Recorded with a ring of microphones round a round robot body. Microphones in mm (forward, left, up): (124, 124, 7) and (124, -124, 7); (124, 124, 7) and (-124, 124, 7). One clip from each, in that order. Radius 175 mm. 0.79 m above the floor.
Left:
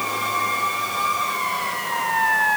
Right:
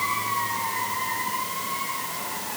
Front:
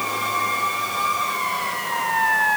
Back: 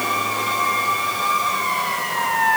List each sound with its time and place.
Only background noise.